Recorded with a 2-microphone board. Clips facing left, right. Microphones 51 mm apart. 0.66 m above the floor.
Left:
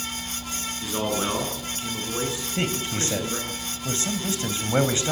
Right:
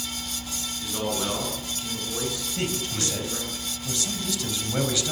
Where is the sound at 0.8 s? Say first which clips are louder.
Left 2 dB; 25° left (ahead or behind), 7.5 m.